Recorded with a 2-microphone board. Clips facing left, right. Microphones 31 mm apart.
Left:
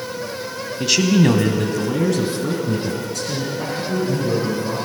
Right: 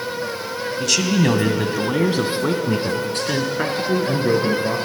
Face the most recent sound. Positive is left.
turn(degrees=-60)  # may be behind; listen again after turning